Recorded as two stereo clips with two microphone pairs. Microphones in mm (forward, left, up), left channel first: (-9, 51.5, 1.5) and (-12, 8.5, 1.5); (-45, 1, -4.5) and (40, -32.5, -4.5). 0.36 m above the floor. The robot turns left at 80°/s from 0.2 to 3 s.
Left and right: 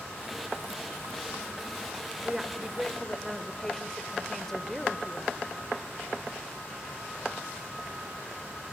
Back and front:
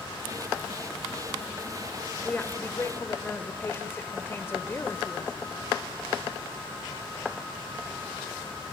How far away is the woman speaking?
About 1.2 m.